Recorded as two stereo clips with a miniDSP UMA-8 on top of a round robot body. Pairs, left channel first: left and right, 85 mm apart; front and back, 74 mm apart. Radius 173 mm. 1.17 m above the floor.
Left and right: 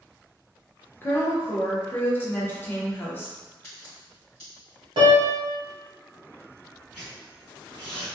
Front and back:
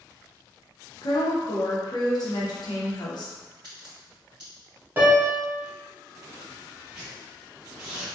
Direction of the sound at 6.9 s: 90° left.